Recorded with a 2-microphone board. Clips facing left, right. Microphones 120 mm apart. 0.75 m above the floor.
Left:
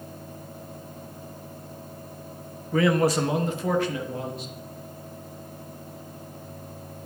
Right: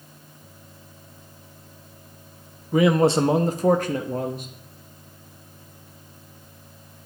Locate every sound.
2.7 s a man speaking: 15° right (ahead or behind), 0.7 m; by 4.5 s 55° right (ahead or behind), 1.3 m